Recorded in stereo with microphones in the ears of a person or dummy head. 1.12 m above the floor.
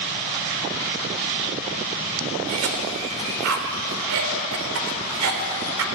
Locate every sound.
2.5 s a cough: 80° right, 4 m